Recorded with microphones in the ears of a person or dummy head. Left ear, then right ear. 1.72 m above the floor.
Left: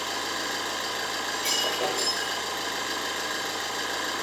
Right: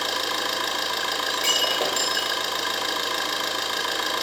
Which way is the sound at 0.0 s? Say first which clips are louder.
Right 5 dB; 35° right (ahead or behind).